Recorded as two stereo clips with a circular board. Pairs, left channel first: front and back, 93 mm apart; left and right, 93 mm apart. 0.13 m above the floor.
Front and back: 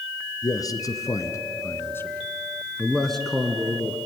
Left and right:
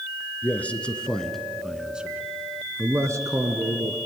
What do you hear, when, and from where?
0.4 s a man speaking: 25° left, 2 m; by 4.0 s 105° right, 2.0 m